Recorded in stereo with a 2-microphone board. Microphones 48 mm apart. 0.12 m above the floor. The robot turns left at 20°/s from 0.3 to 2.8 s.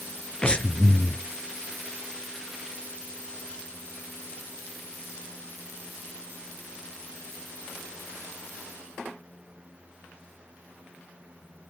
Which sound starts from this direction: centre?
Breathing, at 0.4 s.